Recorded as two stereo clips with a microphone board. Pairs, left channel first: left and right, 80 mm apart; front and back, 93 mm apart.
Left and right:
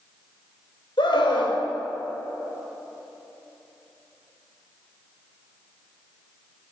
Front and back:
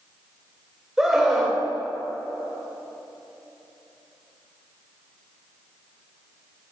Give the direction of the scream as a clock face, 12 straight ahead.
9 o'clock.